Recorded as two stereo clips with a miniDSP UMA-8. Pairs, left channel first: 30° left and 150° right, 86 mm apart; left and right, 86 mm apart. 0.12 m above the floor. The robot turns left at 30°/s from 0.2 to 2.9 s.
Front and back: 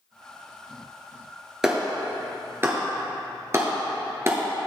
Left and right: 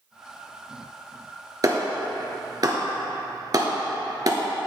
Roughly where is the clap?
Right.